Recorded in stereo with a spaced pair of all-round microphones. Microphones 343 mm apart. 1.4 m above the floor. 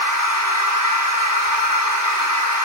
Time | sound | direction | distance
0.0 | a machine running | 65° right (ahead or behind) | 5 m